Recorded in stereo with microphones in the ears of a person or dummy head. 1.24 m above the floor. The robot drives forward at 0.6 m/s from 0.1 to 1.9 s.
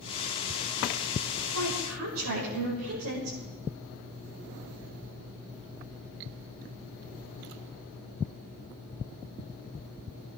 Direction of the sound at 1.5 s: 75° right (ahead or behind).